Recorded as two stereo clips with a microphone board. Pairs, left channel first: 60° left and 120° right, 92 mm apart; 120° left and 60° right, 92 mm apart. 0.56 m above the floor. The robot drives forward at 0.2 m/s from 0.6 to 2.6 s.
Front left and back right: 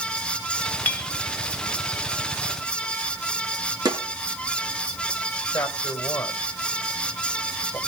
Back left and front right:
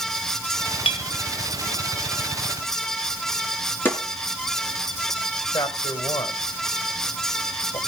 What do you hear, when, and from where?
0.8 s a clink: 130° left, 1.4 m; by 1.1 s 135° left, 1.4 m
3.9 s a snare drum: 170° right, 4.5 m
5.5 s a man speaking: 125° left, 3 m